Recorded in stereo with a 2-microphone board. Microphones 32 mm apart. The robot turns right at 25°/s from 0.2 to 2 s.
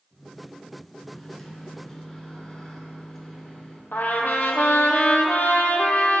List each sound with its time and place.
1.1 s a microwave: 5° left (ahead or behind), 1.3 m; by 3.8 s 15° left (ahead or behind), 1.3 m
3.9 s a trumpet: 70° left (ahead or behind), 0.8 m